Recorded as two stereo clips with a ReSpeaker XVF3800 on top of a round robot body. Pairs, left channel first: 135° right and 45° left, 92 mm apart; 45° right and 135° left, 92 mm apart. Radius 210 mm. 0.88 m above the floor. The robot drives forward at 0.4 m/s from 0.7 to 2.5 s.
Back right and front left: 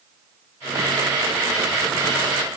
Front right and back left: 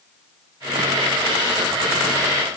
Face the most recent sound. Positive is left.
No sound to turn to.